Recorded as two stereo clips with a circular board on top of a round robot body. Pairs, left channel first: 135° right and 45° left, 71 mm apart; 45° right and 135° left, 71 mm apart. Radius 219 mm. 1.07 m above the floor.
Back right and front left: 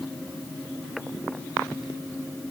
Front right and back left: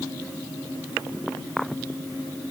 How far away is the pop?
I don't hear a pop.